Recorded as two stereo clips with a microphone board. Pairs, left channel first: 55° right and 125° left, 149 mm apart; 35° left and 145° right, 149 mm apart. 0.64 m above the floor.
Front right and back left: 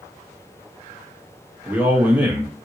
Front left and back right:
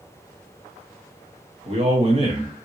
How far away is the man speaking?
About 1.3 m.